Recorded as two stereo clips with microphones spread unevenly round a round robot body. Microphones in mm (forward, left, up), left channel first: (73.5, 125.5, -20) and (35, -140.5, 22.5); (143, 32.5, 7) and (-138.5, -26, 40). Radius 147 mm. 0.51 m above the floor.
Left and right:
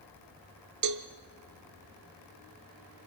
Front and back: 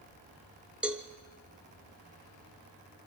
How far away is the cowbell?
About 0.9 m.